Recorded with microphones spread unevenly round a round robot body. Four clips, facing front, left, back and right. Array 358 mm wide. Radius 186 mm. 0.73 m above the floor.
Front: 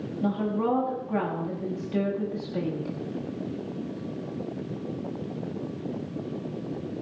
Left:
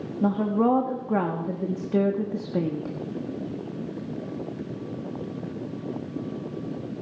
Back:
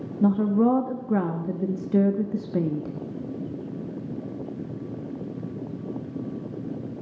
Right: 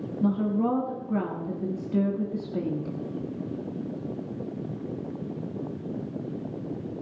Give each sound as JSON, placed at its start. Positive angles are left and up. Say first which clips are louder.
{"t": 0.2, "sound": "a woman speaking", "louder": "left 3 dB, back 6 dB", "azimuth_deg": 170, "distance_m": 1.3}